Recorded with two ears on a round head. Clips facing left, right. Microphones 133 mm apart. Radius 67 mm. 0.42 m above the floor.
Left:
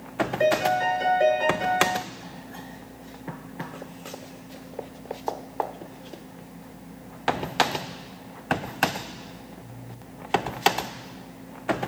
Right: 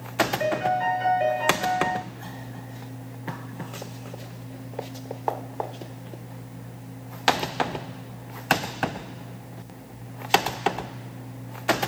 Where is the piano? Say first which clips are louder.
Left 5 dB; 45° left (ahead or behind), 4.5 m.